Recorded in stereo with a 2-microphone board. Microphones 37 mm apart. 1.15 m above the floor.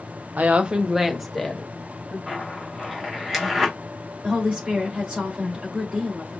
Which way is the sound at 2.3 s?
5° right (ahead or behind).